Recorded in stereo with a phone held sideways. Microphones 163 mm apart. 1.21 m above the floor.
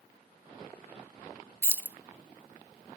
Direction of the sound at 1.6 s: 15° right (ahead or behind).